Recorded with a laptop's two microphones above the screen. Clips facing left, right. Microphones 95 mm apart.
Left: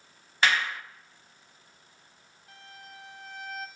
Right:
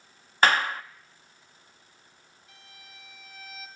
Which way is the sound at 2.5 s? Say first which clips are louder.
Left 7 dB; 60° left (ahead or behind).